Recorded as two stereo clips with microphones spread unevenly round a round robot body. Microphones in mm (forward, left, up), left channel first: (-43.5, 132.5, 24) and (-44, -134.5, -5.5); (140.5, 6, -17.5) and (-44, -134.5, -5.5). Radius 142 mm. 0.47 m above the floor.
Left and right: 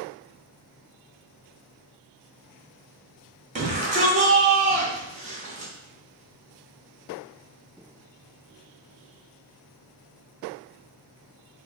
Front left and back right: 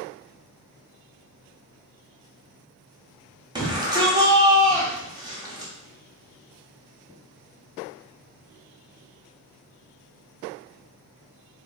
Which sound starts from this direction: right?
A shout, at 3.5 s.